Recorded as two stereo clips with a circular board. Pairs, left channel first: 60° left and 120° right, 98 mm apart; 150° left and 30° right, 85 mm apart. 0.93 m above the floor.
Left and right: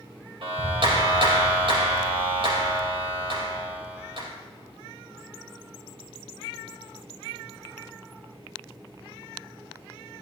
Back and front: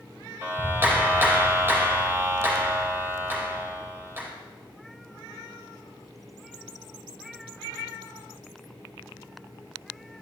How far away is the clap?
About 4.5 m.